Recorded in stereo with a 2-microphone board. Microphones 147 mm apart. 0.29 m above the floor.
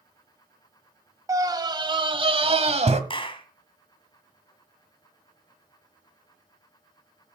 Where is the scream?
25° right (ahead or behind), 1.4 m; by 3.0 s 50° right (ahead or behind), 1.6 m.